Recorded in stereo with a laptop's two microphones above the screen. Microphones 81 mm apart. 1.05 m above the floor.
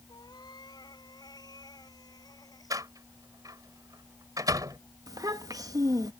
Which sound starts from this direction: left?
A cat meowing, at 0.1 s.